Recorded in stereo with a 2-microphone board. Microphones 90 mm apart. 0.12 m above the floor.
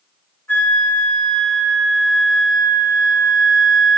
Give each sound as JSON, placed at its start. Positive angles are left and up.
{"t": 0.5, "sound": "a flute", "side_deg": 25, "distance_m": 6.0}